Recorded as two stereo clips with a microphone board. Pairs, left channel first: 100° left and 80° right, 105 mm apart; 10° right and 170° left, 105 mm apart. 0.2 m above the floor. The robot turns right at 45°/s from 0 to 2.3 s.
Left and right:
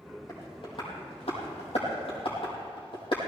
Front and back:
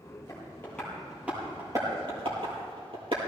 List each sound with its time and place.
0.3 s tapping: 45° left, 5.5 m; by 3.2 s 135° left, 5.5 m